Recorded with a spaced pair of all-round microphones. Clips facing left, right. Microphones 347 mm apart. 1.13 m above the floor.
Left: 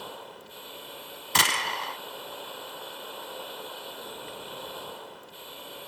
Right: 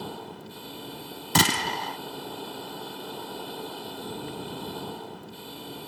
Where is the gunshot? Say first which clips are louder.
Right 8 dB; 55° right (ahead or behind).